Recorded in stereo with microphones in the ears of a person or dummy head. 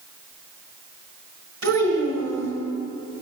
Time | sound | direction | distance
1.6 | a child speaking | 65° right (ahead or behind) | 4 m